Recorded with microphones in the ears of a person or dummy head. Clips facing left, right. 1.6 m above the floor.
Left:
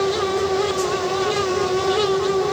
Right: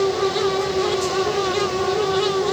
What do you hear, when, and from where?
Only background noise.